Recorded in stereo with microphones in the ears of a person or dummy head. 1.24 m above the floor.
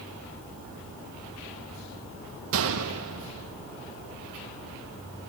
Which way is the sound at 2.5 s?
75° right (ahead or behind).